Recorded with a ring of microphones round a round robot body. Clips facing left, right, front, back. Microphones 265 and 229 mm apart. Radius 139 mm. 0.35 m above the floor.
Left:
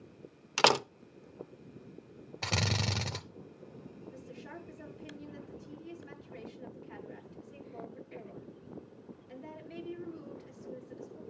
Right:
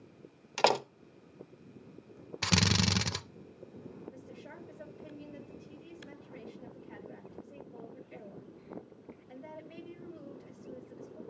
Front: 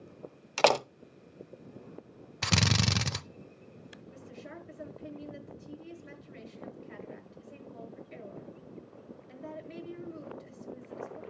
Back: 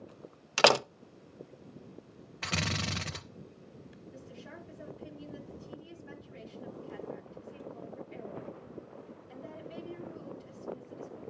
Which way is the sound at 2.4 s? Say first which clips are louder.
Right 5 dB, front 6 dB; 30° right.